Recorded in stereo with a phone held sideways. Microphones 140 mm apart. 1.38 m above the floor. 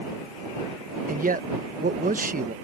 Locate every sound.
1.1 s a man speaking: 80° right